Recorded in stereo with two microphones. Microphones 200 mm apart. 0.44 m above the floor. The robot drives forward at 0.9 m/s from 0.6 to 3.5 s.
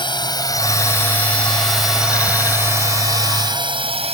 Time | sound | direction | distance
0.0 | a drone | 25° left (ahead or behind) | ?